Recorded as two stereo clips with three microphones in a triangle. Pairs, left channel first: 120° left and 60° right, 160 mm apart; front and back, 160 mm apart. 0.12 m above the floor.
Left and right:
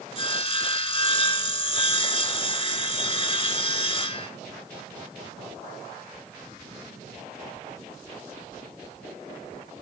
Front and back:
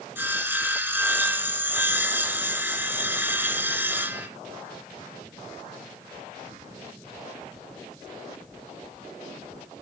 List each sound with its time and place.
0.1 s sawing: 110° left, 0.8 m